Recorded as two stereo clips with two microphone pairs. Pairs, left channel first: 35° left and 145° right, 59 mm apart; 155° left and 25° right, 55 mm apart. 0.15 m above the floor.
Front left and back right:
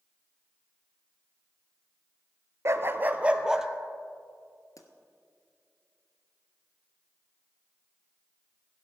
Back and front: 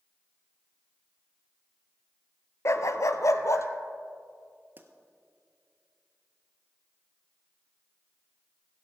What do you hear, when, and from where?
2.6 s a dog barking: straight behind, 0.6 m; by 3.7 s 130° left, 1.0 m
4.8 s a pop: 25° left, 1.1 m